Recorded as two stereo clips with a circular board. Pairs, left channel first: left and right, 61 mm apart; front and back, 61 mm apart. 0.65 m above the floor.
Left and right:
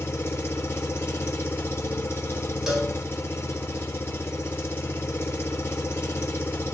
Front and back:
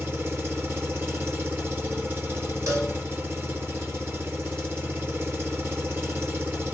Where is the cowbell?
170° right, 1.6 m.